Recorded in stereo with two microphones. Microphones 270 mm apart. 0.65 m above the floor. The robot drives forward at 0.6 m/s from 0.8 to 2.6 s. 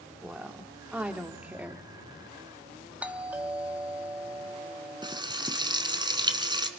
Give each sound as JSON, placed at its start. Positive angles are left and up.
{"t": 0.2, "sound": "a woman speaking", "side_deg": -5, "distance_m": 1.9}
{"t": 3.0, "sound": "a doorbell", "side_deg": -5, "distance_m": 1.3}
{"t": 5.0, "sound": "frying", "side_deg": -15, "distance_m": 1.5}